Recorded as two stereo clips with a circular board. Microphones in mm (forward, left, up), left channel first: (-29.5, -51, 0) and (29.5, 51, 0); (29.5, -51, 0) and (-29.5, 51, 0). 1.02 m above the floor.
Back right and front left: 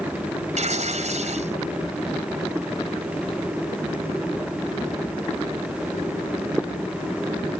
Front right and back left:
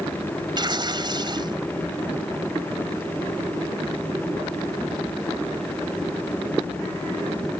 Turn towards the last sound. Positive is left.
turn(degrees=70)